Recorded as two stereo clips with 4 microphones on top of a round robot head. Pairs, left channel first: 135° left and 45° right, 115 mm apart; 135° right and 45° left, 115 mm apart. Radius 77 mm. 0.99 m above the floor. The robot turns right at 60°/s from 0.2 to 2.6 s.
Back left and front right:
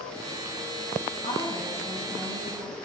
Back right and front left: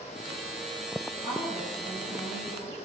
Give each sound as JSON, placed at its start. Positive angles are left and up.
{"t": 1.2, "sound": "a woman speaking", "azimuth_deg": 175, "distance_m": 7.5}